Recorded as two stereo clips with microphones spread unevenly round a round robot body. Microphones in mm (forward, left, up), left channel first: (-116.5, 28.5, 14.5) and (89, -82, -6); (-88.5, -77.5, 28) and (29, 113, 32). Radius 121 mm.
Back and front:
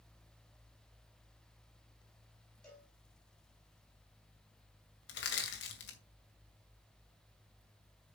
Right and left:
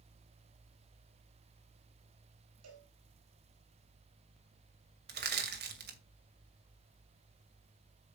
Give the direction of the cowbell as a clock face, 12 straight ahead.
10 o'clock.